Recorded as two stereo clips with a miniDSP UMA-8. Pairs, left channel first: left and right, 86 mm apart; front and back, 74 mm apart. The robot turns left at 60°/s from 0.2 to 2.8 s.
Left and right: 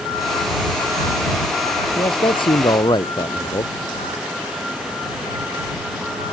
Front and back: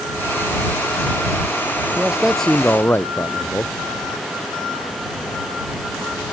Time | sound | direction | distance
2.0 | a man speaking | 110° left | ?